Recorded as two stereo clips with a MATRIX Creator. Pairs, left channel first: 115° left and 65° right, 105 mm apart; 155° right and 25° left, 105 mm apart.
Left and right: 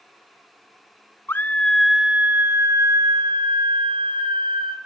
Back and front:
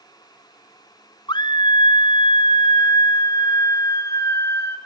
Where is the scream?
175° left, 0.8 m; by 4.8 s 95° right, 1.9 m.